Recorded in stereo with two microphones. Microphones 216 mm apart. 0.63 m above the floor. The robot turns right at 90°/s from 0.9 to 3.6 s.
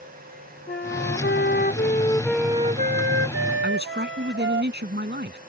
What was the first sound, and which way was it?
A flute, 50° left.